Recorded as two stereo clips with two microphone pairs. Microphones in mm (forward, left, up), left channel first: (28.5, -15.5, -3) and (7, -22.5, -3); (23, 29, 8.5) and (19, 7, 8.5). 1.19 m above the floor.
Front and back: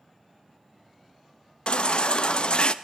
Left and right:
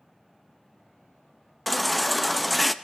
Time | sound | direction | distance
1.7 | a baby crying | 10° right | 0.6 m